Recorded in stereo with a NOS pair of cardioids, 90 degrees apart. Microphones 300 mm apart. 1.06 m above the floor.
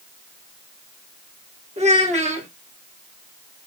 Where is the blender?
I don't hear a blender.